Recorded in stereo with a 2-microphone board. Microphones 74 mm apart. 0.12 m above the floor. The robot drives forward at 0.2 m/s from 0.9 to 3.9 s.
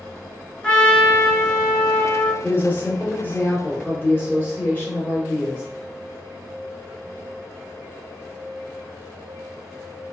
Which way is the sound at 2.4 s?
30° left (ahead or behind).